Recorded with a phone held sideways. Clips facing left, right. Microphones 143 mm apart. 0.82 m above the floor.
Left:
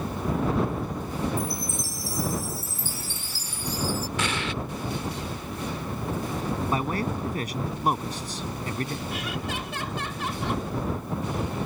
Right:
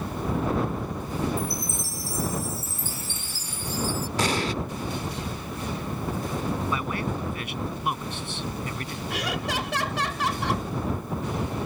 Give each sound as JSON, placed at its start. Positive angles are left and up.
{"t": 1.4, "sound": "a chime", "side_deg": 35}
{"t": 4.2, "sound": "an explosion", "side_deg": -35}
{"t": 6.7, "sound": "a man speaking", "side_deg": 40}
{"t": 9.1, "sound": "laughter", "side_deg": -75}